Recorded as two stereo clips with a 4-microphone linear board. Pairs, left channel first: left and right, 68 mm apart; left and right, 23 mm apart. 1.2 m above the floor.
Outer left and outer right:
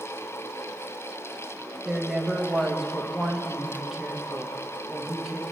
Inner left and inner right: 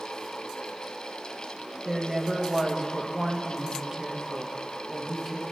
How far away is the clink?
No clink in this recording.